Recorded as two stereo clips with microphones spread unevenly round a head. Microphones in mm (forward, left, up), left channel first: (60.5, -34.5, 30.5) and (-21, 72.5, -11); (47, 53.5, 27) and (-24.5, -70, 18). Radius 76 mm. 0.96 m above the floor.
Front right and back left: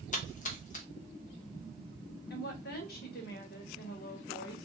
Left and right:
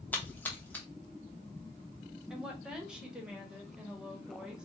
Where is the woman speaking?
40° right, 1.1 m.